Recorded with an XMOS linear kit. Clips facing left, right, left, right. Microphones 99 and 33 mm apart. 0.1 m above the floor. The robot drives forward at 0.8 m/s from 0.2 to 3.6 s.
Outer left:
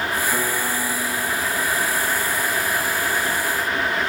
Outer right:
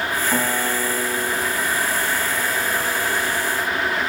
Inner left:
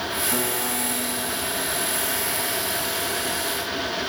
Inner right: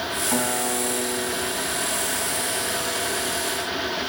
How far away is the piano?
About 5.5 m.